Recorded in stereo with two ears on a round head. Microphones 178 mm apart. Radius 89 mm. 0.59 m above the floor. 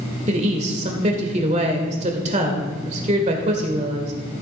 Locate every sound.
0.3 s a woman speaking: 35° right (ahead or behind), 1.7 m